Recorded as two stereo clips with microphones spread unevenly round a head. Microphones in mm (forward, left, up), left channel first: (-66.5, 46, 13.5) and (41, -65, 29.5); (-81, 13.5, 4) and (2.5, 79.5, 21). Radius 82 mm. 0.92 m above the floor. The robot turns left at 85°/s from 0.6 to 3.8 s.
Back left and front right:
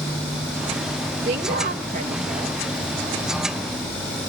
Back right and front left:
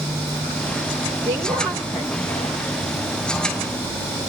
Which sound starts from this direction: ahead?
A woman speaking, at 1.2 s.